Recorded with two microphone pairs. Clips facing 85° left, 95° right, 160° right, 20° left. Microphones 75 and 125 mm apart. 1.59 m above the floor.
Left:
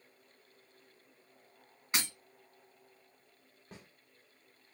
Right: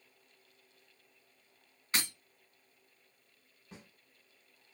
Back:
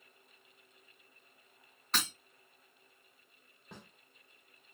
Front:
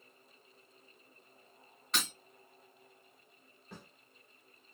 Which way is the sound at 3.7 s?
130° left.